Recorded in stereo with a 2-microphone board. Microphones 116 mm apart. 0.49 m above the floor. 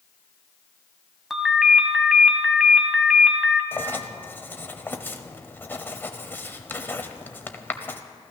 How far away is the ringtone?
About 1.4 m.